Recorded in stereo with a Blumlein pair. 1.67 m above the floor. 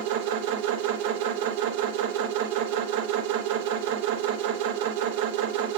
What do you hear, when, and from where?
0.0 s a machine running: 50° right, 0.8 m